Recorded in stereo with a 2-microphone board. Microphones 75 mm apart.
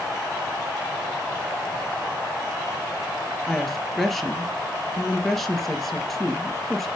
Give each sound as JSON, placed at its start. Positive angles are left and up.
{"t": 3.5, "sound": "a woman speaking", "side_deg": 0, "distance_m": 3.0}